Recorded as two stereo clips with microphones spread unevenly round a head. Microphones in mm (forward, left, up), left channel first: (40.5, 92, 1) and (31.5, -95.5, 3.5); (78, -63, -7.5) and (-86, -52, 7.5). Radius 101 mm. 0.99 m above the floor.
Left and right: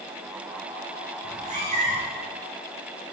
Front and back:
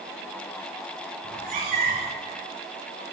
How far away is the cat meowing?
About 5 m.